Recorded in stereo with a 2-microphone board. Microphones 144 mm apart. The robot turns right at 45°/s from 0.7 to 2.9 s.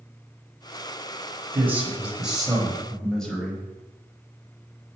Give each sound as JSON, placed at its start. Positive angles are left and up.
{"t": 1.5, "sound": "a man speaking", "side_deg": -15, "distance_m": 1.0}